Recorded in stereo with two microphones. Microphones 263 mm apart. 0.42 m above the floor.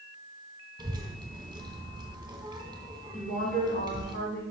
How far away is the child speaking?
About 2.0 m.